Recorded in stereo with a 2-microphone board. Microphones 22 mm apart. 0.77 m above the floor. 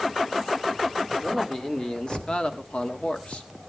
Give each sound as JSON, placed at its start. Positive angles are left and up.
{"t": 1.2, "sound": "a man speaking", "side_deg": 30, "distance_m": 2.0}